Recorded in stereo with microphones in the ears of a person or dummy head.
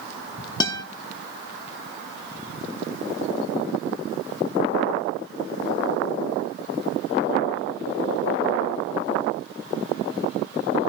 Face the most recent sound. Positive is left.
turn(degrees=20)  # may be behind; listen again after turning